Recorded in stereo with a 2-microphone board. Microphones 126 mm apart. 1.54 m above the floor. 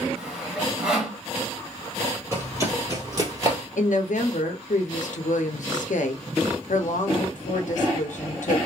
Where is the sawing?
10° right (ahead or behind), 1.3 m.